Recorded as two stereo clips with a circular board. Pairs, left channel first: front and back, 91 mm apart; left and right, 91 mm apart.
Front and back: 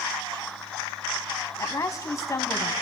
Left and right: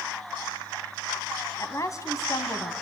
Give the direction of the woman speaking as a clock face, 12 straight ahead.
10 o'clock.